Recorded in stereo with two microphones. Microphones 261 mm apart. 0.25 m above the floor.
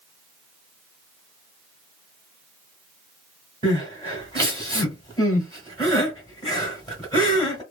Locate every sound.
3.6 s crying: 15° left (ahead or behind), 1.6 m